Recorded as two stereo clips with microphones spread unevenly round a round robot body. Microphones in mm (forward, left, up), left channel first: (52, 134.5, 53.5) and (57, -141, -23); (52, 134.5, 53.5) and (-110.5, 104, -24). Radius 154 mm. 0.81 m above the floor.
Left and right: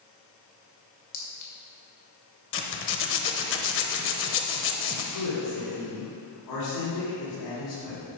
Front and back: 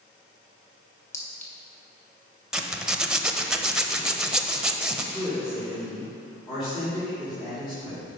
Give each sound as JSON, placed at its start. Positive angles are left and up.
{"t": 1.1, "sound": "a clink", "azimuth_deg": 60, "distance_m": 2.0}
{"t": 2.5, "sound": "a zipper", "azimuth_deg": 85, "distance_m": 0.8}
{"t": 5.1, "sound": "a woman speaking", "azimuth_deg": 85, "distance_m": 3.0}